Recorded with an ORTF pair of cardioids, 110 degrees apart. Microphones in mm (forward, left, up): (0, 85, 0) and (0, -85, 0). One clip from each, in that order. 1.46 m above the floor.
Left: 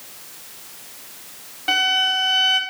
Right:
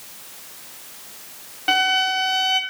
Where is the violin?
10° right, 0.6 m.